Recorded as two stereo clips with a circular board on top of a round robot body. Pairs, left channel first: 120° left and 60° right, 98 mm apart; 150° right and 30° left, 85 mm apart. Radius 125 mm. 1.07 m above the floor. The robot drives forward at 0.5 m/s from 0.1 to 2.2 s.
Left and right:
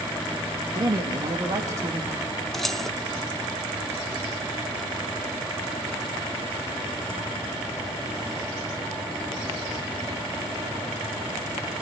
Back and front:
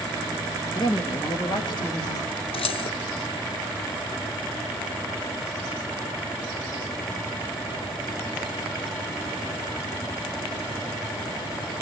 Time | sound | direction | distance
0.7 | a woman speaking | 110° right | 2.5 m
2.5 | keys jangling | 155° right | 0.7 m